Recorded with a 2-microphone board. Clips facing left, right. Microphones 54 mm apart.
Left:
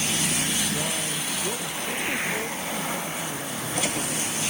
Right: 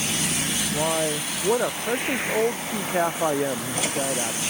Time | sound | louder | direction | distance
0.7 | a man speaking | right 5 dB | 75° right (ahead or behind) | ?